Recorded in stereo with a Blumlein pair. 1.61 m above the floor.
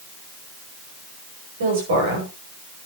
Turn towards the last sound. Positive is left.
turn(degrees=-60)